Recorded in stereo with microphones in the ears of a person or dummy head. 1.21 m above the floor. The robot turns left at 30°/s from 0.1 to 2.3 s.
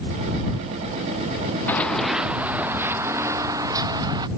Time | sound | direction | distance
1.7 | running footsteps | 15° left (ahead or behind) | ?